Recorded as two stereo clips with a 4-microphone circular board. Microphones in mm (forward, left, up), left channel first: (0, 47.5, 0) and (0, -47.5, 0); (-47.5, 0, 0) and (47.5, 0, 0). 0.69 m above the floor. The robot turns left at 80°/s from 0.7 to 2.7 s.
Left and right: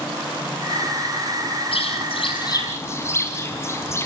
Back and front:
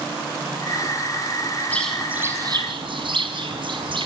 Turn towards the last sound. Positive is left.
turn(degrees=30)